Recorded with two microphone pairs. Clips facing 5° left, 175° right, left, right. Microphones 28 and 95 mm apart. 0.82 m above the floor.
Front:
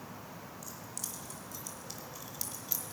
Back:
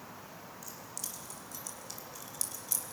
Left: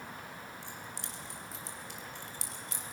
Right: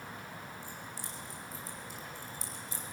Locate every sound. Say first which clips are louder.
0.6 s keys jangling: even, even; 95° left, 4 m; by 2.9 s 75° left, 3 m